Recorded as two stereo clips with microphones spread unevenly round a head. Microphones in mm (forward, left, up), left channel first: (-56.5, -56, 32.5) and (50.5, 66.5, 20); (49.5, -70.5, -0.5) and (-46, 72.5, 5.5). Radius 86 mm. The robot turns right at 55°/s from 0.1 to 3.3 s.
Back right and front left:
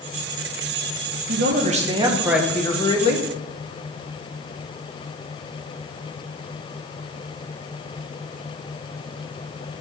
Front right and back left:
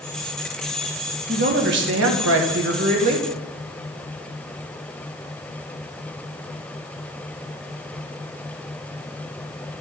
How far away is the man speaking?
About 1.7 m.